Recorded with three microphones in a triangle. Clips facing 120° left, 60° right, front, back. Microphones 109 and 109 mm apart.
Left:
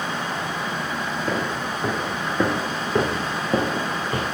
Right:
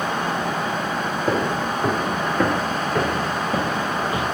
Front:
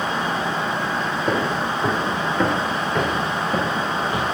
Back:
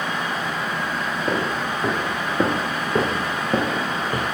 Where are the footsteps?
80° right, 1.2 m; by 4.2 s 150° left, 1.9 m.